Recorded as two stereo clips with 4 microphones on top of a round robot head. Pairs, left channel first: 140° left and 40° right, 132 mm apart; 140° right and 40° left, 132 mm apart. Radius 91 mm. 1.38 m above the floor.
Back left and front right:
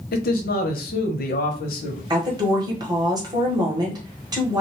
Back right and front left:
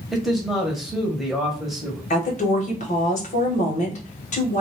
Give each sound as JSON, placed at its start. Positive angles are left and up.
{"t": 0.1, "sound": "a man speaking", "azimuth_deg": 130, "distance_m": 0.9}
{"t": 2.1, "sound": "a woman speaking", "azimuth_deg": -105, "distance_m": 1.2}